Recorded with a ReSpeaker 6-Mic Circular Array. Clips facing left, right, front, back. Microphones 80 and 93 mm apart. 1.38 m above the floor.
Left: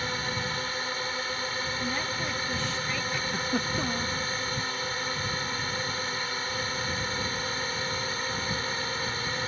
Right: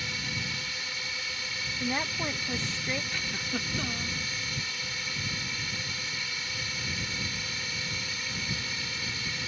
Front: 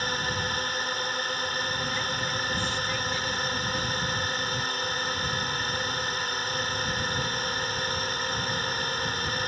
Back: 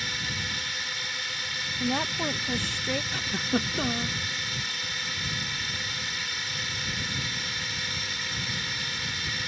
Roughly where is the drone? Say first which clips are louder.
Left 5 dB, front 6 dB; ahead left.